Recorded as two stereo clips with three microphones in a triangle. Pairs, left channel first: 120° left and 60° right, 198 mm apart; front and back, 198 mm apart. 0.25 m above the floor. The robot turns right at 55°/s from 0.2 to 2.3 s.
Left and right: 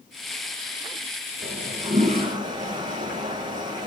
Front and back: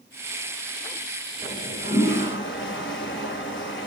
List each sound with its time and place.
1.4 s a toilet flushing: 40° right, 1.2 m; by 3.9 s 5° left, 1.2 m